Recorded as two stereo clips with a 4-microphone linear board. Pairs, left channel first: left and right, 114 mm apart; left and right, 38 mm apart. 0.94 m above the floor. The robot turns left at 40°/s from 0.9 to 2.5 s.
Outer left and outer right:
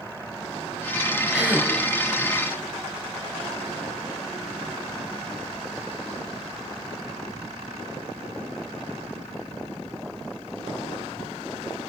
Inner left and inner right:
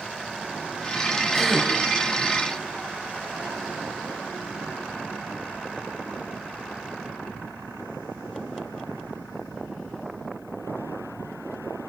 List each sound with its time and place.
1.3 s a gasp: 5° right (ahead or behind), 5 m; by 1.7 s 25° right (ahead or behind), 5 m